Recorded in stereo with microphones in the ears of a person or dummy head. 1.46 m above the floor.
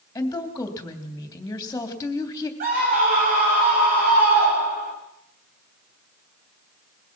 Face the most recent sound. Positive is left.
turn(degrees=-50)  # may be behind; listen again after turning